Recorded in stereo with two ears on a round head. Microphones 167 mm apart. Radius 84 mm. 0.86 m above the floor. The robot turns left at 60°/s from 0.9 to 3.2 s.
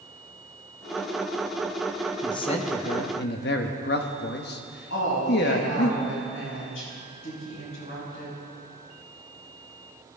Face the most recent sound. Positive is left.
turn(degrees=75)  # may be behind; listen again after turning